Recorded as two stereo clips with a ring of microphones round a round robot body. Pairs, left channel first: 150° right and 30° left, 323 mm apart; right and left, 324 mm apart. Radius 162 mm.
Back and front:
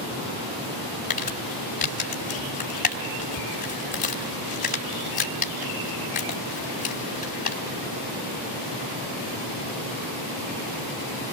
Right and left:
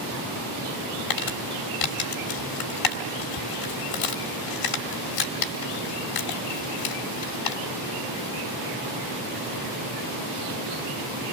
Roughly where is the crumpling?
Right.